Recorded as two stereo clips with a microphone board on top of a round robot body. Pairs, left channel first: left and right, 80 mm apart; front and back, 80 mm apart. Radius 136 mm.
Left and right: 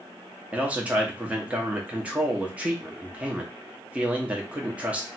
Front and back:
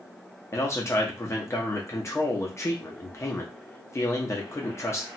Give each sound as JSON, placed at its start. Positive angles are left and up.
{"t": 0.5, "sound": "a man speaking", "azimuth_deg": -25, "distance_m": 0.9}